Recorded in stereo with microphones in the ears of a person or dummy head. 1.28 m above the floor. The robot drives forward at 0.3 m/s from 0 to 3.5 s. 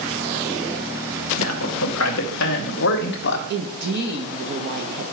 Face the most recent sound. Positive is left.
turn(degrees=-55)  # may be behind; listen again after turning